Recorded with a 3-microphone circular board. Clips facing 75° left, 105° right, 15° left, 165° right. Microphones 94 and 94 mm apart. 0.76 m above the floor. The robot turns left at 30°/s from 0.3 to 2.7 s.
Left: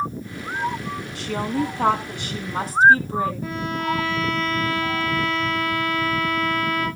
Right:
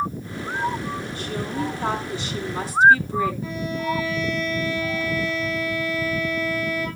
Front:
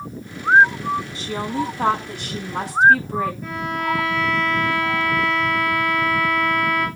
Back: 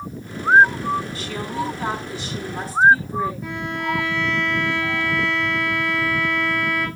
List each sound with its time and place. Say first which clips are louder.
1.1 s a woman speaking: left 6 dB, front 2 dB; 80° left, 4.5 m; by 3.3 s 35° left, 4.5 m
3.4 s a violin: left 1 dB, front 2 dB; 115° left, 7.5 m